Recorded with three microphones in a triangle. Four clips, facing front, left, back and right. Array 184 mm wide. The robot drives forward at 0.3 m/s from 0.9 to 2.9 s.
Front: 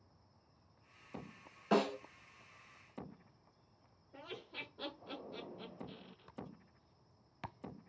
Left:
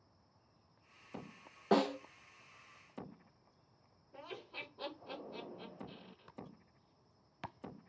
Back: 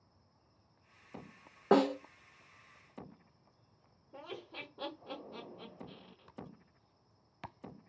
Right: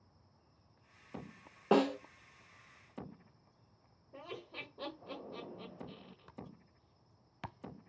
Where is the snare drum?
160° right, 0.8 m.